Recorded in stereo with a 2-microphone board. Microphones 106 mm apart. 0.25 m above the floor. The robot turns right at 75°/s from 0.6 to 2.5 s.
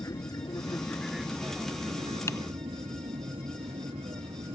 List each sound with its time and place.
0.0 s an aircraft: 35° left (ahead or behind); by 4.6 s 75° right (ahead or behind)
2.3 s typing on a keyboard: 30° left (ahead or behind); by 2.4 s 35° left (ahead or behind)